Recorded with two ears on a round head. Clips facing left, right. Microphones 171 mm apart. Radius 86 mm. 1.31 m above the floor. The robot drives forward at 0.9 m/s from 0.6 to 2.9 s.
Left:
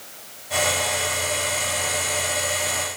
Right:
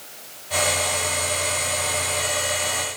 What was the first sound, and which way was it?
Only background noise.